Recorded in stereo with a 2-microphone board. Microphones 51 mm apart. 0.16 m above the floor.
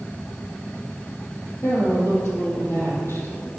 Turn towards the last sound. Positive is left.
turn(degrees=50)  # may be behind; listen again after turning